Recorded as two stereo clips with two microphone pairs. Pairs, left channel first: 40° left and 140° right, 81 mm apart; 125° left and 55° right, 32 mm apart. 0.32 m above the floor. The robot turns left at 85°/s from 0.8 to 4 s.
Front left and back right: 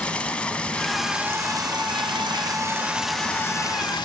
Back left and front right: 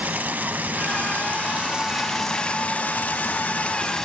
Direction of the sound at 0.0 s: 35° right.